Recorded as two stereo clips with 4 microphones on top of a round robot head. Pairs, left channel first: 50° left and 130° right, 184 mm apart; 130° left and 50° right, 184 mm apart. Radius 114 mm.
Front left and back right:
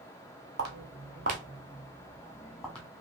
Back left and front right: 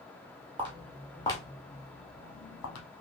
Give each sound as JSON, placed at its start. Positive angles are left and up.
{"t": 0.6, "sound": "footsteps", "azimuth_deg": -110, "distance_m": 0.9}